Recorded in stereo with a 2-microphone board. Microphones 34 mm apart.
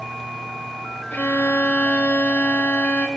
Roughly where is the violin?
Left.